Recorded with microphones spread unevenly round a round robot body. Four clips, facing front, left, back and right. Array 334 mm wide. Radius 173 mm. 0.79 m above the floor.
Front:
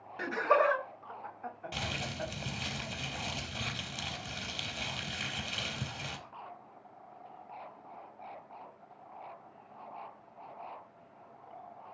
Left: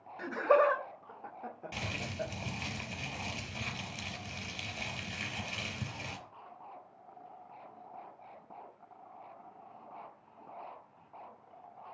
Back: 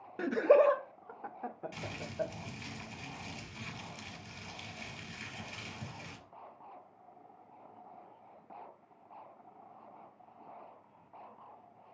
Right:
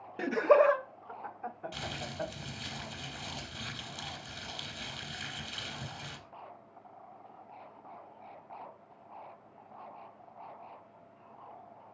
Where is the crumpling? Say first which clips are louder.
Even, even; 35° left, 4.5 m.